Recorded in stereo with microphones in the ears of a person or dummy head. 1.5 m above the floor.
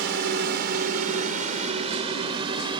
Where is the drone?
65° right (ahead or behind); by 2.8 s 25° right (ahead or behind).